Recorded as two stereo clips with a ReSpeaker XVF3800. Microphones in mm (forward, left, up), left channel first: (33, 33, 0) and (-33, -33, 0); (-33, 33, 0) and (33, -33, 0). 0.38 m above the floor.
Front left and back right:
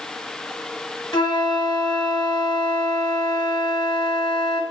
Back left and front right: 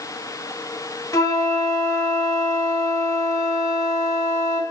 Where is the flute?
85° left, 4 m.